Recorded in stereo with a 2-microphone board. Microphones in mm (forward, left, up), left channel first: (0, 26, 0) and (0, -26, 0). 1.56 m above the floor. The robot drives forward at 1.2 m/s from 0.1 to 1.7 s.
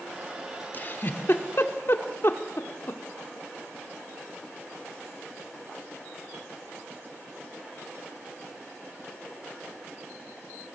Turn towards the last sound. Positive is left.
turn(degrees=50)  # may be behind; listen again after turning